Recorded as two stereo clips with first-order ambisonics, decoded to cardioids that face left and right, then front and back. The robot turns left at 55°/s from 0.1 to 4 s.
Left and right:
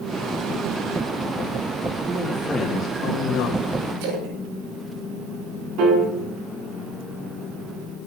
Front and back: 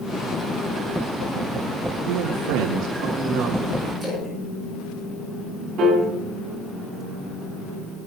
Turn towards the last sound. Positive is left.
turn(degrees=-130)